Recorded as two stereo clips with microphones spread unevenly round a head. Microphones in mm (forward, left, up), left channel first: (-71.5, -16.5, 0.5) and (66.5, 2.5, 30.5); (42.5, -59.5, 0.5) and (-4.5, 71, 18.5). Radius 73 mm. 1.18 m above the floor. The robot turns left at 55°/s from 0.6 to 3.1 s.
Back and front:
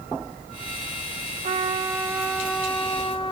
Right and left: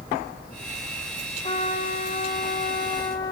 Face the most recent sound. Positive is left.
turn(degrees=-130)